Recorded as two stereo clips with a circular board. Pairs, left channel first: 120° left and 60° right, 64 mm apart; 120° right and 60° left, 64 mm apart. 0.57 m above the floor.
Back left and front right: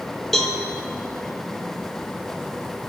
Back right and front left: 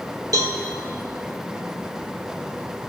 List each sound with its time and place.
0.3 s a cowbell: 35° left, 2.5 m